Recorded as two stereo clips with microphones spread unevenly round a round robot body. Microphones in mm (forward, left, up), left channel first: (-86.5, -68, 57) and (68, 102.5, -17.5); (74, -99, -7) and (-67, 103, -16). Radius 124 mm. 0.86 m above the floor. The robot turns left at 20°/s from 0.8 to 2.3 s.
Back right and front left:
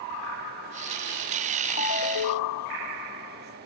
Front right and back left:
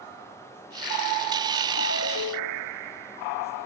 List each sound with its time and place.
1.8 s a ringtone: 95° right, 0.9 m; by 2.7 s 105° right, 0.9 m